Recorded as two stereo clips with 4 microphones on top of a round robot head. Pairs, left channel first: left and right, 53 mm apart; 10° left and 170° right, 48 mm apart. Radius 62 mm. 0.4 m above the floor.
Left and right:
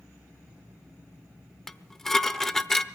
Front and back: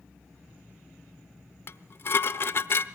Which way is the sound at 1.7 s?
10° left.